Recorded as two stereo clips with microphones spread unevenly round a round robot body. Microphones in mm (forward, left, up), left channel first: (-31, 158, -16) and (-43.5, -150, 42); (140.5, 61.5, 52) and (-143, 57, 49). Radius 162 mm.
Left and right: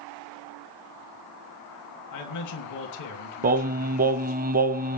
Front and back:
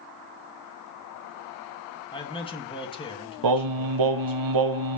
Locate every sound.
2.1 s a man speaking: 70° left, 3 m
3.4 s singing: 160° right, 0.6 m